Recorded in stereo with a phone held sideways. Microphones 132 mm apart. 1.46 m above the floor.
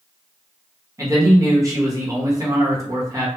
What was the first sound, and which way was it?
A man speaking, 25° right (ahead or behind).